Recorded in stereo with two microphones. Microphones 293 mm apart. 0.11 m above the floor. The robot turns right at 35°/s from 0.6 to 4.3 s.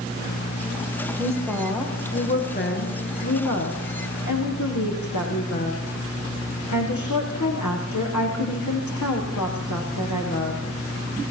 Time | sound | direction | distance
1.2 | a woman speaking | 15° right | 7 m